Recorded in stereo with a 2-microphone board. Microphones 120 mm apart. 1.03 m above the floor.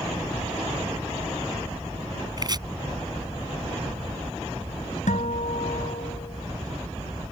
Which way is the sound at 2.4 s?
35° right (ahead or behind).